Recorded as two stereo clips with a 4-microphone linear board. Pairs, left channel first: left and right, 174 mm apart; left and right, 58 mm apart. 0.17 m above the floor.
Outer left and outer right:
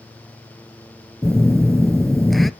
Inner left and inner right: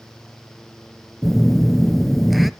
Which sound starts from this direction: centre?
A phone buzzing, at 1.2 s.